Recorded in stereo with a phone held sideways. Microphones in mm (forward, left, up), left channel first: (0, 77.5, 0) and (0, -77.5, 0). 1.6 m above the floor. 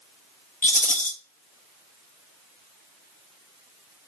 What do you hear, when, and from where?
0.6 s a rattle: 55° left (ahead or behind), 0.6 m